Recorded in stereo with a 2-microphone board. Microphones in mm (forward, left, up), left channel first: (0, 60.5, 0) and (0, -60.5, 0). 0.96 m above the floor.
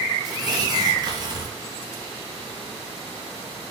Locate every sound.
0.2 s tearing paper: 35° right (ahead or behind), 1.0 m